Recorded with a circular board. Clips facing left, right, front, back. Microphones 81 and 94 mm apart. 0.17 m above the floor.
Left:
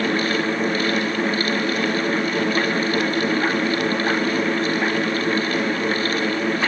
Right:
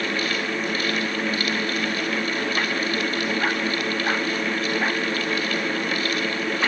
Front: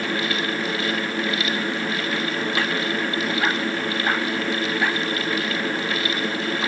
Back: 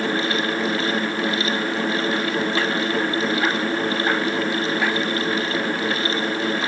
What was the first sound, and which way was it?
Only background noise.